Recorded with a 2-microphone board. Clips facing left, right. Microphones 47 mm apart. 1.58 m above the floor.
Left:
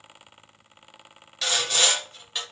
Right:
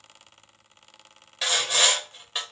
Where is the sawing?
15° right (ahead or behind), 1.8 m.